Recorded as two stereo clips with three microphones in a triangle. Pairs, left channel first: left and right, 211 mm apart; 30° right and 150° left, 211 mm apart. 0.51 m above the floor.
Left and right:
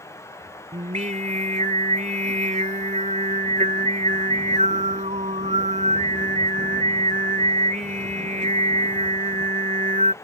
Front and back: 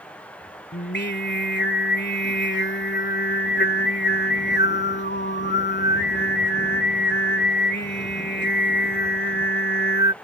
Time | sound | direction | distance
0.7 | singing | 40° right | ?